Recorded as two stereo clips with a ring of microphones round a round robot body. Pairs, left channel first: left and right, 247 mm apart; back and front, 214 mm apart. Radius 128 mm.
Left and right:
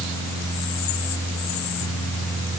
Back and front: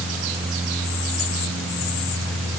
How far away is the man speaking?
I don't hear a man speaking.